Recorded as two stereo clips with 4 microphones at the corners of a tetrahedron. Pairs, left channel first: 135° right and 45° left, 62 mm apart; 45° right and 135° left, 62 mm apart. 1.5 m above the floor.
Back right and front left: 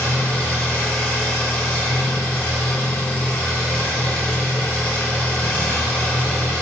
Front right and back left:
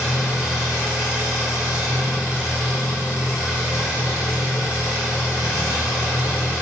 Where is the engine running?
170° right, 0.7 m.